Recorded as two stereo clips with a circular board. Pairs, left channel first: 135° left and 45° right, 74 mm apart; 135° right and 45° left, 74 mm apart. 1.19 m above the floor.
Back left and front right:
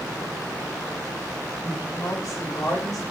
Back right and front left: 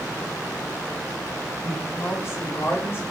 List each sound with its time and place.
1.6 s a woman speaking: straight behind, 4.5 m; by 3.0 s 170° left, 4.5 m